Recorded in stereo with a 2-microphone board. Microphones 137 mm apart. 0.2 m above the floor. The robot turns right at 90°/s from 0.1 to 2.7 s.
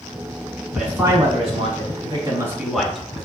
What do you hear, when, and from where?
0.8 s a man speaking: 175° right, 1.7 m; by 3.2 s straight ahead, 1.7 m